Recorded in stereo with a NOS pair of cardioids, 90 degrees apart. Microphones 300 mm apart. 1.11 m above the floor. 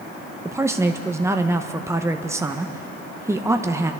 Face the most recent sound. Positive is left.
turn(degrees=-10)